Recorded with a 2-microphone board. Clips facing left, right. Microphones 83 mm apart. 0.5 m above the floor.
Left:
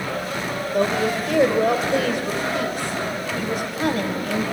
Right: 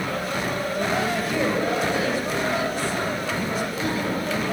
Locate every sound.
0.7 s a woman speaking: 60° left (ahead or behind), 2.5 m